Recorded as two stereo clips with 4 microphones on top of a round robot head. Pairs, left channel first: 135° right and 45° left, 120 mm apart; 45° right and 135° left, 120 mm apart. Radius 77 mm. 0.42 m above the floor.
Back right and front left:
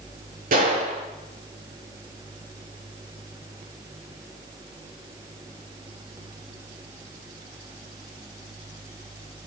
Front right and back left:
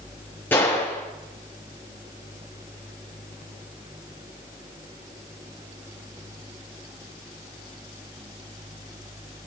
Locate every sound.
0.5 s a gunshot: 30° left, 7 m